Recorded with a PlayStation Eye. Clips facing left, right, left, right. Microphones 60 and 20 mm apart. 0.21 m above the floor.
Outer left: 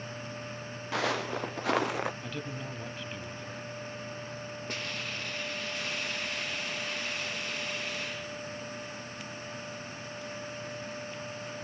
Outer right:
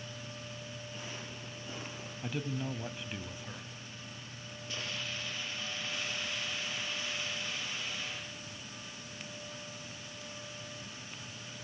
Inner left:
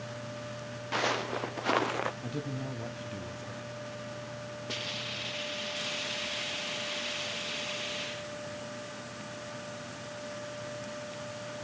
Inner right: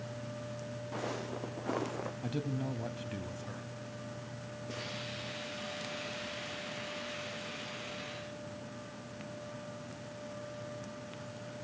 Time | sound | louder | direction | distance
0.9 | footsteps | outer left 19 dB, inner left 10 dB | 85° left | 1.4 m
2.2 | a man speaking | outer right 1 dB, even | 10° right (ahead or behind) | 1.1 m
4.7 | a hiss | outer left 1 dB, inner left 6 dB | 45° left (ahead or behind) | 6.5 m